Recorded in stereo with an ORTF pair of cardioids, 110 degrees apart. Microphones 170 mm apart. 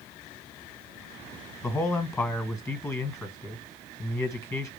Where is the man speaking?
15° left, 1.7 m.